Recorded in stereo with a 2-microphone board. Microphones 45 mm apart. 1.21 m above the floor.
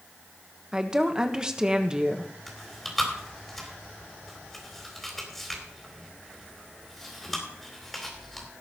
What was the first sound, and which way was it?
A woman speaking, 15° right (ahead or behind).